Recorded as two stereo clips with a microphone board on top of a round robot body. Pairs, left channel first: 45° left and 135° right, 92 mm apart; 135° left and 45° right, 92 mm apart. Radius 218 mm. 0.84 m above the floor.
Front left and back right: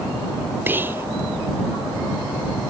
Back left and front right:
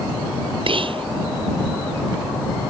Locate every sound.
0.7 s whispering: 65° right